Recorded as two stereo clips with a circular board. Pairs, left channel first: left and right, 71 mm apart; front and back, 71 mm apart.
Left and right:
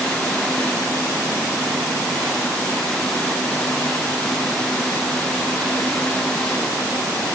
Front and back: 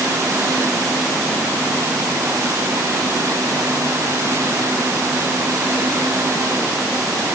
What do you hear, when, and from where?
Only background noise.